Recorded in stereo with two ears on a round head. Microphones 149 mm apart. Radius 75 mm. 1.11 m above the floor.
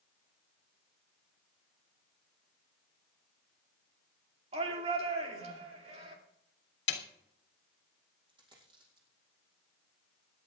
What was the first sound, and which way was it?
A shout, 35° right (ahead or behind).